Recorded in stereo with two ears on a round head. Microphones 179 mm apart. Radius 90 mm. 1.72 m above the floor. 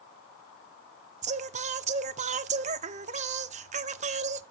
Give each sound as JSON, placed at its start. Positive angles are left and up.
{"t": 1.2, "sound": "singing", "side_deg": -35, "distance_m": 0.7}